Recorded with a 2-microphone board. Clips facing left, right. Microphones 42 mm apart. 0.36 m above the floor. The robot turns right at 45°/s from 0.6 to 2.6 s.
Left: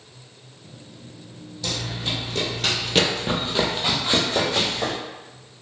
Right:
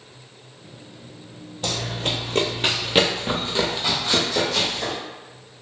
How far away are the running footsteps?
About 0.8 m.